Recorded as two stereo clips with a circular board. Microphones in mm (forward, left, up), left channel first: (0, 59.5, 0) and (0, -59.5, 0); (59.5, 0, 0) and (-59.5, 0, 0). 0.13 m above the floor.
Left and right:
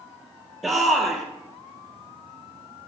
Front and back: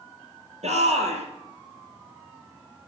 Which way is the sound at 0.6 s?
Straight behind.